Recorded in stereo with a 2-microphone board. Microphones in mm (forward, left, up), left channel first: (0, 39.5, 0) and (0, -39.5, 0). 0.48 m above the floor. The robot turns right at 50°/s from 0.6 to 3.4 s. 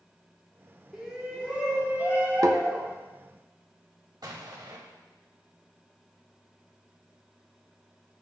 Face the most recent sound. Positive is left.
turn(degrees=-65)  # may be behind; listen again after turning